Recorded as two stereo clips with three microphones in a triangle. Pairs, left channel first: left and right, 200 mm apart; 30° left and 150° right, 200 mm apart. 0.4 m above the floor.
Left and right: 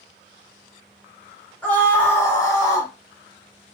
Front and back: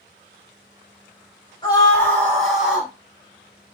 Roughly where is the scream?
Ahead left.